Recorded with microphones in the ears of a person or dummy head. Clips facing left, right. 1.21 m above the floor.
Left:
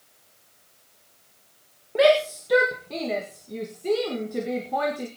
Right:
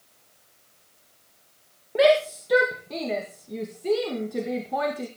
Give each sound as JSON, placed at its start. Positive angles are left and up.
{"t": 1.9, "sound": "a shout", "side_deg": -5, "distance_m": 1.8}